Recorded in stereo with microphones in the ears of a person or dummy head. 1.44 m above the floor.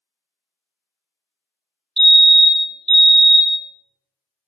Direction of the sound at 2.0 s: 30° right (ahead or behind).